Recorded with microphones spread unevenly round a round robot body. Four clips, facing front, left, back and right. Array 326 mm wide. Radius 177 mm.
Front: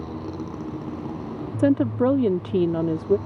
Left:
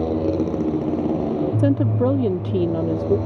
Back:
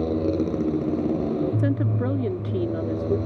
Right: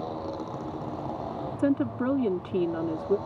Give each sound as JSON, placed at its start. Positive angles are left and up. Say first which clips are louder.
{"t": 0.0, "sound": "a motorcycle", "louder": "left 13 dB, back 9 dB", "azimuth_deg": 120}
{"t": 1.6, "sound": "a woman speaking", "louder": "left 3 dB, front 6 dB", "azimuth_deg": 40}